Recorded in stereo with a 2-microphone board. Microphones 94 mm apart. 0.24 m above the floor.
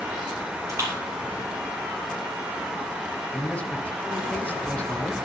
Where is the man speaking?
15° left (ahead or behind), 1.3 m.